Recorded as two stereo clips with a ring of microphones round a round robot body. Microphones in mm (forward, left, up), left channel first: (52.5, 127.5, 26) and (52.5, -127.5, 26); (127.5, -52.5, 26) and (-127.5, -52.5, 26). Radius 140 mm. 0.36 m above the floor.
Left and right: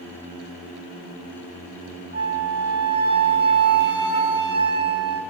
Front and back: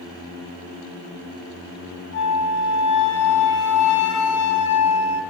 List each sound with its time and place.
2.1 s a flute: 45° right, 2.5 m